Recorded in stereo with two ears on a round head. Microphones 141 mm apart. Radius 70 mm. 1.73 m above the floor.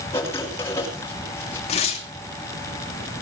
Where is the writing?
15° left (ahead or behind), 6 m.